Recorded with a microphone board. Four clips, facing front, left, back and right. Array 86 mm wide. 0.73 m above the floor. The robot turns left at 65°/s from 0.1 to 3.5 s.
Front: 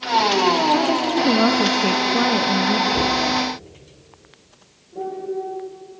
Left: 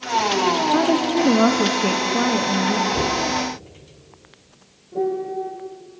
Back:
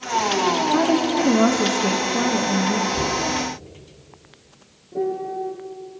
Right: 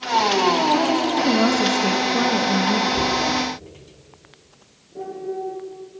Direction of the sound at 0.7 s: 105° left.